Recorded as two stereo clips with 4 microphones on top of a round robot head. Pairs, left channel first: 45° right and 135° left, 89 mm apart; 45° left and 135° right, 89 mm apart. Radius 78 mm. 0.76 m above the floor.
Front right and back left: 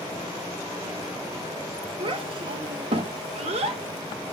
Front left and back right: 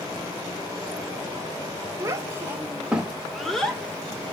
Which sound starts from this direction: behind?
A child speaking, at 2.0 s.